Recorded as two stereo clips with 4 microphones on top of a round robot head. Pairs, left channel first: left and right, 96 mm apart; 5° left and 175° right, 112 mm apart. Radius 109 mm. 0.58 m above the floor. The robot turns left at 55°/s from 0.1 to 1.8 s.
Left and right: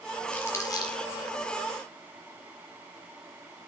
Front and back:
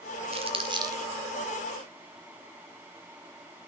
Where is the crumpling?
165° left, 2 m; by 1.0 s 125° left, 2 m.